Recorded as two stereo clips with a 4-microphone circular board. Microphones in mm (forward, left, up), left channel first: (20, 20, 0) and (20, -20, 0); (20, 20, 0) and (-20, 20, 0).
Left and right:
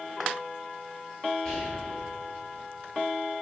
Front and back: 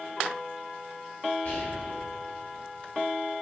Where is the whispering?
20° left, 1.4 m.